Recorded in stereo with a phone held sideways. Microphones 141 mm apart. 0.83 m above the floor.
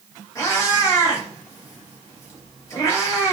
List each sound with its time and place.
0.3 s a cat meowing: 25° left (ahead or behind), 1.6 m